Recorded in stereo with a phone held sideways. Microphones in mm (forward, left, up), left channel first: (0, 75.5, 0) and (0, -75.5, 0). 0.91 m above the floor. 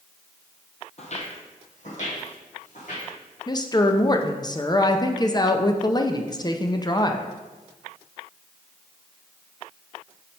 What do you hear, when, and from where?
1.0 s footsteps: 50° left (ahead or behind), 1.3 m; by 3.1 s 55° left (ahead or behind), 3 m
3.5 s a woman speaking: 25° left (ahead or behind), 0.5 m